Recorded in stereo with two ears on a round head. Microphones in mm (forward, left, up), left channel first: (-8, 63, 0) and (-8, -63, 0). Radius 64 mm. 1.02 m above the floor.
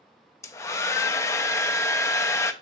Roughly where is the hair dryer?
Centre.